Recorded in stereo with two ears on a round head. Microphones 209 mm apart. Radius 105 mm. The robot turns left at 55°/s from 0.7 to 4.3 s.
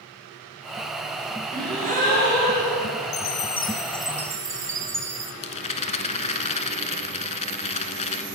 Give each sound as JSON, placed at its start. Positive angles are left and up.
{"t": 1.5, "sound": "a gasp", "azimuth_deg": -15, "distance_m": 4.0}
{"t": 3.1, "sound": "a chime", "azimuth_deg": 50, "distance_m": 0.5}
{"t": 5.4, "sound": "a rattle", "side_deg": 30, "distance_m": 0.8}